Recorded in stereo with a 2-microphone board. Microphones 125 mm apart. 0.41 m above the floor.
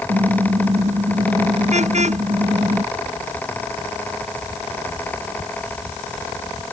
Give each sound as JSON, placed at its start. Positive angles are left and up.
{"t": 0.1, "sound": "a car horn", "side_deg": -65}